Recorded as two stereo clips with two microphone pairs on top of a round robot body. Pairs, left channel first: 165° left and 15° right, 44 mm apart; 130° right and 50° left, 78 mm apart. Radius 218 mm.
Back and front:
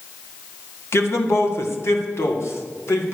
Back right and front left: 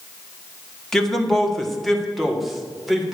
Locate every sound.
0.9 s a man speaking: 155° left, 2 m; by 3.1 s 140° left, 3 m